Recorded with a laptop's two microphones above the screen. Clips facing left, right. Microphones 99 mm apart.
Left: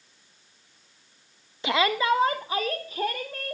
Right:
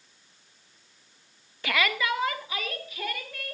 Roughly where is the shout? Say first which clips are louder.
Left 5 dB; centre.